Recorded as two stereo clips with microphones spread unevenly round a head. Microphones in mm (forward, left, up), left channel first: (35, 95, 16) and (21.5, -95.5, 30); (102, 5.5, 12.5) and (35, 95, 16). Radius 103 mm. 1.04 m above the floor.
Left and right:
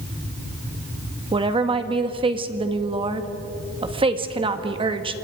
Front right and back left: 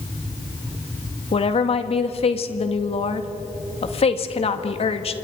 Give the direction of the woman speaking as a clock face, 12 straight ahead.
1 o'clock.